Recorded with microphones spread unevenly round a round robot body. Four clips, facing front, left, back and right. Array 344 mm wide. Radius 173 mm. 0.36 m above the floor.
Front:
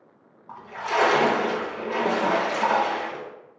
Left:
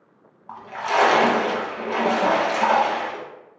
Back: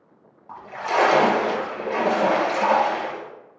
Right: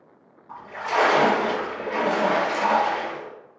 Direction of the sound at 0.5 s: 125° left.